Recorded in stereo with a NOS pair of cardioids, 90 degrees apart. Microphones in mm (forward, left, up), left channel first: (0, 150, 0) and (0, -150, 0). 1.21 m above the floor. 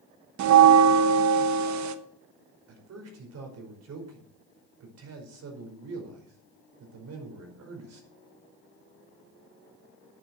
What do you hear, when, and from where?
0.4 s a bell: 65° right, 1.1 m
2.7 s a man speaking: 55° right, 5 m